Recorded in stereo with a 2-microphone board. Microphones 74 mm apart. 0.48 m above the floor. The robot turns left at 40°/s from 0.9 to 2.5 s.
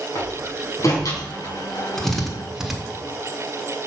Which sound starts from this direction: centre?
A drill, at 2.0 s.